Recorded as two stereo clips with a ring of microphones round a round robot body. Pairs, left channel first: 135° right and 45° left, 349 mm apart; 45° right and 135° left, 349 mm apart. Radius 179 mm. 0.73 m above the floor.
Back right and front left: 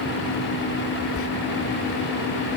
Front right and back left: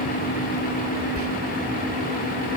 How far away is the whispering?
About 1.7 m.